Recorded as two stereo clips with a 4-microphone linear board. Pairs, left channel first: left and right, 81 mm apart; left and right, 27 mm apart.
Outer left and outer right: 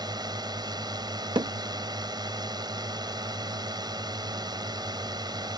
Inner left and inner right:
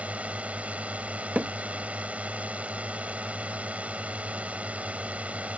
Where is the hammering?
85° right.